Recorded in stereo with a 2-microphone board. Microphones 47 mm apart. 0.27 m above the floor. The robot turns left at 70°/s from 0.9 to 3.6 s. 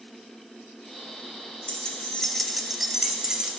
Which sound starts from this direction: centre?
Keys jangling, at 1.7 s.